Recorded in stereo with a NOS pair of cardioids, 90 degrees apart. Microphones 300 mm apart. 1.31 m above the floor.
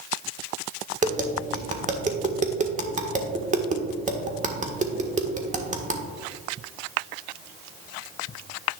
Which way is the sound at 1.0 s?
25° right.